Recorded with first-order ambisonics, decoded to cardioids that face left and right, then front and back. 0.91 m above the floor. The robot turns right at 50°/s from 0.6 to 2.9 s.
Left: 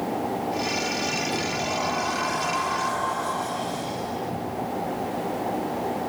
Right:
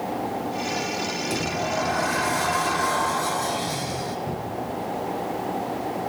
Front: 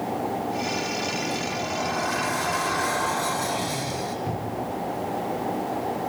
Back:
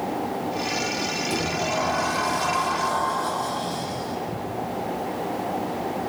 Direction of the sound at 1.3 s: 120° right.